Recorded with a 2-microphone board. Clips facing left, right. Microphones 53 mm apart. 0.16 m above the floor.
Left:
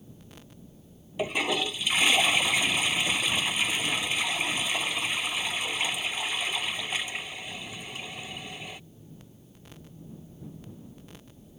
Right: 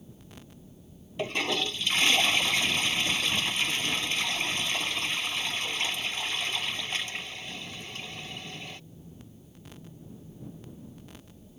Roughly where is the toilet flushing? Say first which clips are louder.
Left 2 dB; centre.